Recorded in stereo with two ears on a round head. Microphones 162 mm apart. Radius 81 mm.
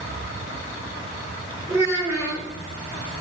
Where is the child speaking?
15° right (ahead or behind), 5 m.